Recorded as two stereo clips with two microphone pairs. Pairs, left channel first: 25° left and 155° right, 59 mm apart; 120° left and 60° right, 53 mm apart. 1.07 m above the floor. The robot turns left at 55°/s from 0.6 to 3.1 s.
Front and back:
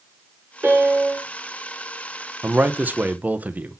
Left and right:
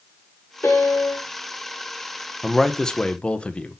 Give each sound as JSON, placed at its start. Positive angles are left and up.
{"t": 0.6, "sound": "a piano", "azimuth_deg": 145, "distance_m": 3.5}
{"t": 2.4, "sound": "a man speaking", "azimuth_deg": -145, "distance_m": 0.8}